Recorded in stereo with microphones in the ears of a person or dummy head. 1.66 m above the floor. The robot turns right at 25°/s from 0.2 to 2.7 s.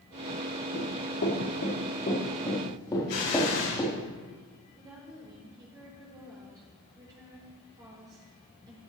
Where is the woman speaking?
25° right (ahead or behind), 4 m.